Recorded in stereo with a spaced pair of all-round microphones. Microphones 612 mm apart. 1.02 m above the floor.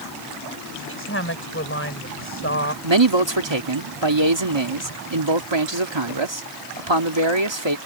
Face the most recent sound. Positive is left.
turn(degrees=-50)  # may be behind; listen again after turning